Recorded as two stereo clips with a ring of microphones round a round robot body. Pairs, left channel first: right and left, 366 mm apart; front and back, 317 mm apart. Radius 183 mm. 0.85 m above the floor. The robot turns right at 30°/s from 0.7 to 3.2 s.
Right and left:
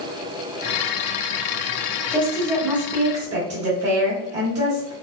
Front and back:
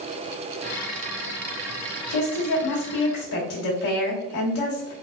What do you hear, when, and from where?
2.1 s a woman speaking: 15° right, 1.6 m; by 4.9 s 20° left, 1.6 m